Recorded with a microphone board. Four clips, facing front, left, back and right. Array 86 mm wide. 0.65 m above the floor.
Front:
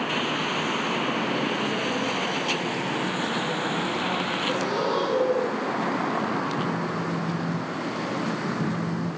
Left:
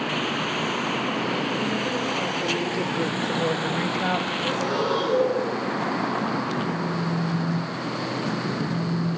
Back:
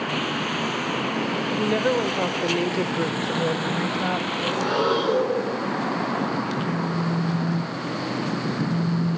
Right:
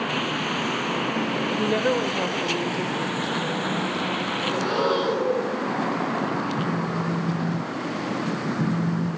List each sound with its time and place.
1.6 s a woman speaking: 130° right, 2 m; by 4.3 s 120° left, 3 m
4.4 s breathing: 160° right, 8.5 m
6.6 s a phone buzzing: 85° right, 6 m